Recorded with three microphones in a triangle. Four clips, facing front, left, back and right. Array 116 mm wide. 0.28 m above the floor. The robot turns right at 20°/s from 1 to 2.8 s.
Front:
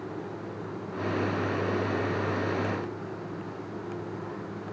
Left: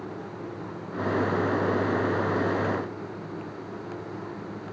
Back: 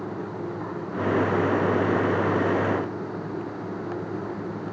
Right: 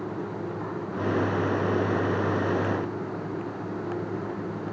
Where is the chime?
No chime in this recording.